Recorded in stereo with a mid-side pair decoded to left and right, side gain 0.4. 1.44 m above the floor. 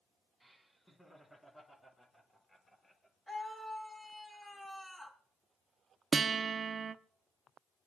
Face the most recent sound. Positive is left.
turn(degrees=-50)